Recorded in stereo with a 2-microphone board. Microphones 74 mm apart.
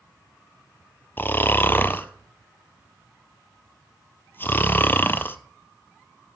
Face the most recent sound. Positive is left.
turn(degrees=30)  # may be behind; listen again after turning